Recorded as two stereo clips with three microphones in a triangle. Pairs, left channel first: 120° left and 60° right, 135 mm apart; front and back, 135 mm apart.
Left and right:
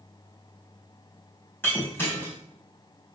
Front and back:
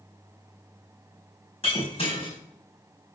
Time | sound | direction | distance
1.6 | breaking glass | 45° left | 3 m